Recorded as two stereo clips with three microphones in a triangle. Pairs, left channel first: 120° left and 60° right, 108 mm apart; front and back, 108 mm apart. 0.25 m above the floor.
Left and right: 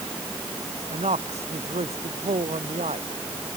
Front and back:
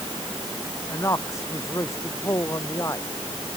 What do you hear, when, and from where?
0.9 s a man speaking: 60° right